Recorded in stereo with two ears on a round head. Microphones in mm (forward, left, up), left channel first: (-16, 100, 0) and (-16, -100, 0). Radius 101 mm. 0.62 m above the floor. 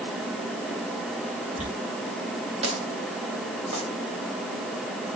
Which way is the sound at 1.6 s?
30° right (ahead or behind).